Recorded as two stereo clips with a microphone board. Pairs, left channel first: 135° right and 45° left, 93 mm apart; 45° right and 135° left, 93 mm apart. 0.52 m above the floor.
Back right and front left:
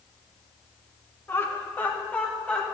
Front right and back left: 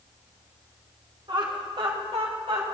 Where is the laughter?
165° left, 1.9 m; by 2.6 s 145° left, 2.5 m.